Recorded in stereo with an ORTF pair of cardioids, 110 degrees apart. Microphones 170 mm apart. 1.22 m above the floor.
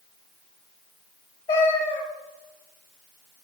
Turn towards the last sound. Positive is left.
turn(degrees=35)